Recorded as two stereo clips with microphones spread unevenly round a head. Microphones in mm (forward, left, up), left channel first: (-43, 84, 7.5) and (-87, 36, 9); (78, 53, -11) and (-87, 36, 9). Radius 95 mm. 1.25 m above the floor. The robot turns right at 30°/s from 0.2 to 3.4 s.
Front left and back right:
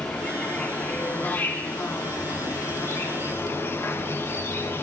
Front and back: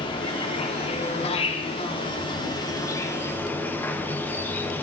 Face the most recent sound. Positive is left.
turn(degrees=70)